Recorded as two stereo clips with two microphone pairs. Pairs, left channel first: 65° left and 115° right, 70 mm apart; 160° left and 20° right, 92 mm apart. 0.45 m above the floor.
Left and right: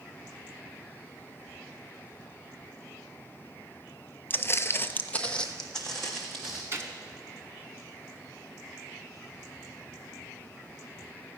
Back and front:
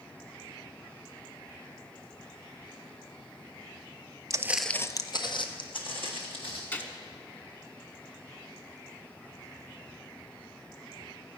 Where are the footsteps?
15° left, 0.6 m; by 6.6 s 150° left, 2.5 m.